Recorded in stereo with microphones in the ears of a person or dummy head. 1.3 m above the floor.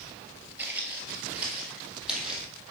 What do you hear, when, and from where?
0.6 s footsteps: 10° right (ahead or behind), 1.6 m; by 2.5 s 5° right (ahead or behind), 3 m